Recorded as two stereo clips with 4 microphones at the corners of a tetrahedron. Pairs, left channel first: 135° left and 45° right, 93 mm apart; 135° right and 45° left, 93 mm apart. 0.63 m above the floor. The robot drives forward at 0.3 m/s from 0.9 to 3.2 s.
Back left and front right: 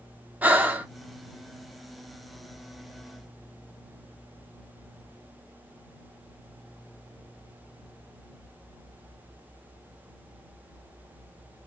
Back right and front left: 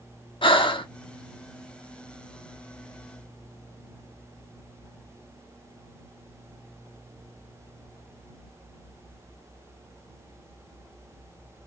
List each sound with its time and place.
0.4 s breathing: 115° right, 0.5 m